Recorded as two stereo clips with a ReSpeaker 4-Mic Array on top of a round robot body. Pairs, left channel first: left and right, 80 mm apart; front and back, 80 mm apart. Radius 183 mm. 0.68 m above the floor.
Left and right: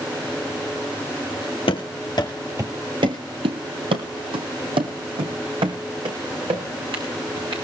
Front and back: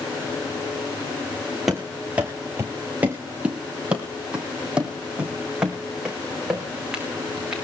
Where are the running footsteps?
95° left, 0.9 m; by 7.6 s 100° right, 4 m.